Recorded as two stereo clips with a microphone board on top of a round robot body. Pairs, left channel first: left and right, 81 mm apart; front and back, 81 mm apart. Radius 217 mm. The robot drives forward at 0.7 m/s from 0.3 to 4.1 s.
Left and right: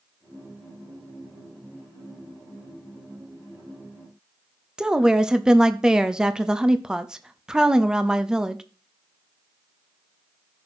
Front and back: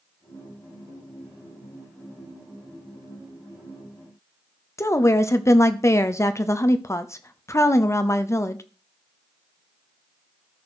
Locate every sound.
4.8 s a woman speaking: 15° right, 1.1 m